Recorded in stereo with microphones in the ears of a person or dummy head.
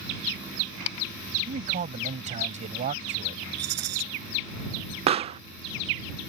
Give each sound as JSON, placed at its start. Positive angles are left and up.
{"t": 1.5, "sound": "a man speaking", "side_deg": -35}
{"t": 3.6, "sound": "a rattle", "side_deg": -60}
{"t": 5.1, "sound": "a pop", "side_deg": -30}